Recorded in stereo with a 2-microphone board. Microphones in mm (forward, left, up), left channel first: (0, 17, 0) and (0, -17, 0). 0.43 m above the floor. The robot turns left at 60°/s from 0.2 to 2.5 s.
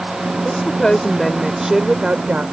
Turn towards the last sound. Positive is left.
turn(degrees=-70)